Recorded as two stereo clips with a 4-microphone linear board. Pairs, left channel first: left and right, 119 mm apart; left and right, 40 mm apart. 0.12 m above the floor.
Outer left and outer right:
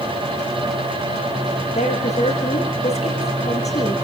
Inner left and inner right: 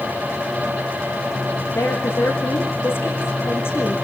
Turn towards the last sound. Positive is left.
turn(degrees=70)  # may be behind; listen again after turning